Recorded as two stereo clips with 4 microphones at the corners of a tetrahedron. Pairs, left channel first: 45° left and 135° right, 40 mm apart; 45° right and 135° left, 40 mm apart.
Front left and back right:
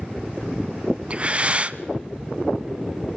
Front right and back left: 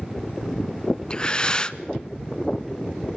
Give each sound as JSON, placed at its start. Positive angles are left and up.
{"t": 1.1, "sound": "breathing", "azimuth_deg": -100, "distance_m": 0.8}